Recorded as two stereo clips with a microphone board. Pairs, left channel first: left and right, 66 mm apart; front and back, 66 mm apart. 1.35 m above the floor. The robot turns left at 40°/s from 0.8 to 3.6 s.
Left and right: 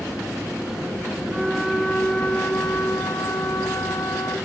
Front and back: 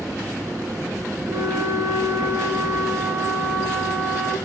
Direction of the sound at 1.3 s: 160° right.